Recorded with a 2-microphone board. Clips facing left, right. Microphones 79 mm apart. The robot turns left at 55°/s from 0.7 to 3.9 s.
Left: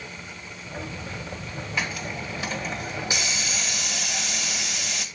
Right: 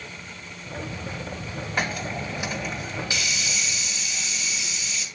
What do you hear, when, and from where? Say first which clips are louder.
1.8 s a hiss: right 3 dB; 125° right, 2 m; by 5.0 s 115° left, 2 m